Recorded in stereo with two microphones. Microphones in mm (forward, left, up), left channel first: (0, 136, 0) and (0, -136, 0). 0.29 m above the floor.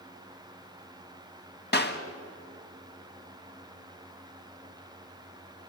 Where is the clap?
40° left (ahead or behind), 1.8 m.